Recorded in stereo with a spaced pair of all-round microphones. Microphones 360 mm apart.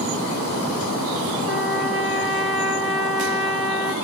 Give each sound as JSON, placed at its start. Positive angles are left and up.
{"t": 1.5, "sound": "a trumpet", "side_deg": -75, "distance_m": 2.5}